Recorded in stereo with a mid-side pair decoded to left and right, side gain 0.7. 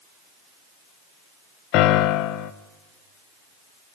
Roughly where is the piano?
Ahead left.